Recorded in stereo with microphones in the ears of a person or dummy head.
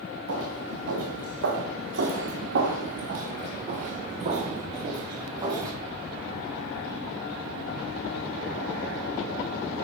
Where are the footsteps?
80° right, 6 m; by 5.7 s 20° right (ahead or behind), 5 m.